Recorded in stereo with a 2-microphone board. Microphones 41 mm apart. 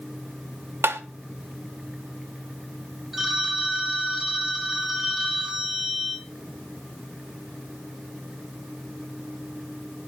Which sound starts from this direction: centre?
A phone ringing, at 3.1 s.